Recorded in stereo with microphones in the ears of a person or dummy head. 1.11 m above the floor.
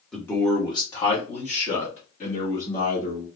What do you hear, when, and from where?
0.1 s a man speaking: 5° left (ahead or behind), 0.9 m; by 3.3 s 45° left (ahead or behind), 2.5 m